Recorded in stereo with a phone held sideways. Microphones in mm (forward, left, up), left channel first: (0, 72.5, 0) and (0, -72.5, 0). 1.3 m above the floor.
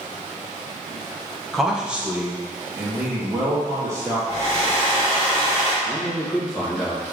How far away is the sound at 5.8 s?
About 1.7 m.